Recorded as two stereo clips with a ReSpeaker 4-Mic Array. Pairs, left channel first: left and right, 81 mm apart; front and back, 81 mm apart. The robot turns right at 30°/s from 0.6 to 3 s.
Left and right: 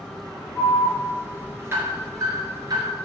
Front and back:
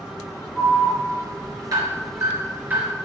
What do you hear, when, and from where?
0.6 s an alarm: straight behind, 4.5 m; by 2.9 s 110° right, 4.5 m